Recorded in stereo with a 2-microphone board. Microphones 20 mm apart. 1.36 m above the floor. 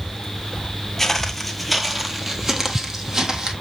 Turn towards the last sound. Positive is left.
turn(degrees=-30)  # may be behind; listen again after turning